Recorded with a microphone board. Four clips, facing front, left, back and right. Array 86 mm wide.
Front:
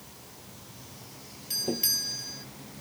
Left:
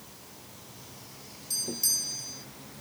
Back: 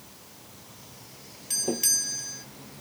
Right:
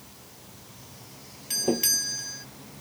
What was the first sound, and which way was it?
A doorbell, 100° right.